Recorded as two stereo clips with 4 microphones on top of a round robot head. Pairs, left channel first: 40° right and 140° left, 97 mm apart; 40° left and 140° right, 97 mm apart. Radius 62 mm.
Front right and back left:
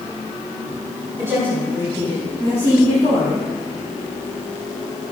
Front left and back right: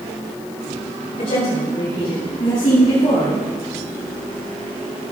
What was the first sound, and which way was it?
A woman speaking, 75° left.